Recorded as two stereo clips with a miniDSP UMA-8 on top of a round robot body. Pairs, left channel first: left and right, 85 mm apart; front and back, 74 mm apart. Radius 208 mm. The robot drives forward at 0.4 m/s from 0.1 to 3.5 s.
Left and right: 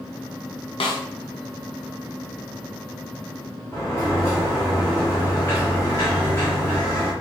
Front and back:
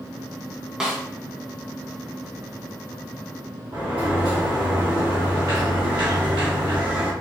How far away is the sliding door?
About 1.3 m.